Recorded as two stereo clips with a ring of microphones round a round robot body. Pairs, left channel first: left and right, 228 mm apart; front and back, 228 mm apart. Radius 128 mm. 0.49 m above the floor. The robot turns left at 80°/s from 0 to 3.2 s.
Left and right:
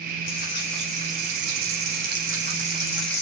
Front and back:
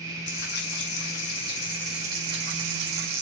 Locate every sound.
0.3 s frying: 40° left, 5.5 m; by 3.2 s 165° left, 5.5 m